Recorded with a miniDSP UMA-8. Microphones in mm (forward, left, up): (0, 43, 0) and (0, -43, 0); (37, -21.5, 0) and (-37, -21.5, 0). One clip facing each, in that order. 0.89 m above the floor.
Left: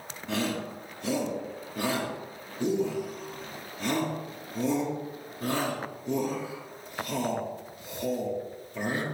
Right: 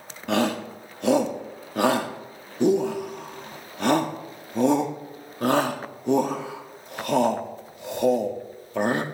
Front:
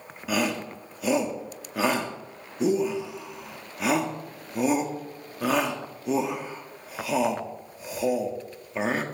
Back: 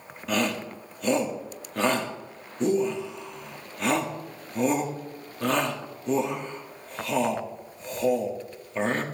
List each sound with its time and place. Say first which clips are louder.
0.3 s a shout: right 7 dB, even; 85° right, 1.9 m